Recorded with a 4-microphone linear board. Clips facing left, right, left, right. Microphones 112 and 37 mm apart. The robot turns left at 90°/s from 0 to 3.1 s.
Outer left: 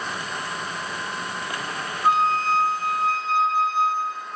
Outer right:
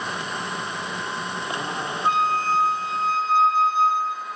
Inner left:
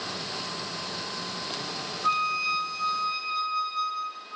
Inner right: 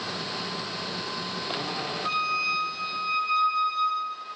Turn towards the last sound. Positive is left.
turn(degrees=-75)